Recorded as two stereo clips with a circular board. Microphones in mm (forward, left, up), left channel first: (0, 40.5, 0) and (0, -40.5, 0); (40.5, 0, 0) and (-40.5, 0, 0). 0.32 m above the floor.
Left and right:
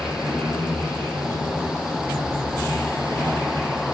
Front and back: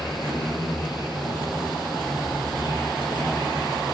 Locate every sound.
0.0 s an insect: 30° left, 8.5 m